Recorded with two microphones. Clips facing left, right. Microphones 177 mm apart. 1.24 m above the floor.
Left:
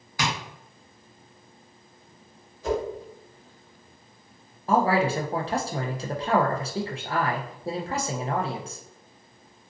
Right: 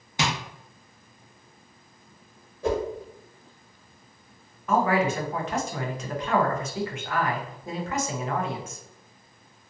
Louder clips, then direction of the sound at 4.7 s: Left 1 dB; 30° left (ahead or behind).